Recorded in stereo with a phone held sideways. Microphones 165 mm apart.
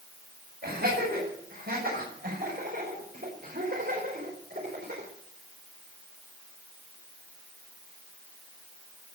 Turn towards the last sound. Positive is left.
turn(degrees=-80)